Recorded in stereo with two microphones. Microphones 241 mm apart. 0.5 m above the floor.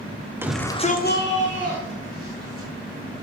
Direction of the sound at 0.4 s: 10° right (ahead or behind).